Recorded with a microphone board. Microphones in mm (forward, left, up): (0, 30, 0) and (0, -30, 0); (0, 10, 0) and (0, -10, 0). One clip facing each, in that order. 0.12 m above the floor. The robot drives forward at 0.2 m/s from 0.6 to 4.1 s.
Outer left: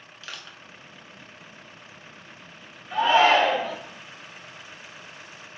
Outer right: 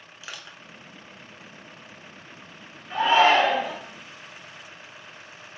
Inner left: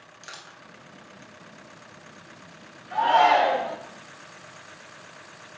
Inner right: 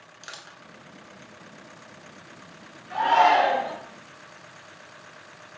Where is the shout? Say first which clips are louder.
Even, even; 25° right (ahead or behind), 1.9 m.